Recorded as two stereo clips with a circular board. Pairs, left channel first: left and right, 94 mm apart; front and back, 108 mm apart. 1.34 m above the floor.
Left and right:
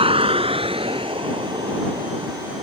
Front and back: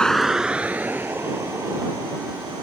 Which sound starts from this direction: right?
A vehicle, at 0.0 s.